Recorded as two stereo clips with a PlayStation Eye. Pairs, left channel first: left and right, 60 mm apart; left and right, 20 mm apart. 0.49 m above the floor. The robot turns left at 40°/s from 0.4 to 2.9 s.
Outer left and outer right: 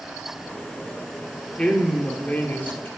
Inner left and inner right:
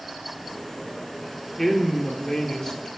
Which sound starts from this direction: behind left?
A woman speaking, at 1.6 s.